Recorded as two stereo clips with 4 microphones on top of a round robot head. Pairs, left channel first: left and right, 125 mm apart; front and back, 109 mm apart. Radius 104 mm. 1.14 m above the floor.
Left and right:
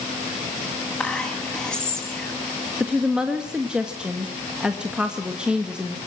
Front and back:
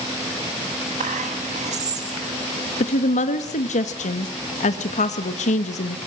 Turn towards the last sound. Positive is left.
turn(degrees=-5)